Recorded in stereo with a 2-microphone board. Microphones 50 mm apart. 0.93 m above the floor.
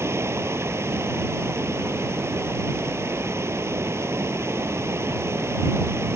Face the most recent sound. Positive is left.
turn(degrees=-60)  # may be behind; listen again after turning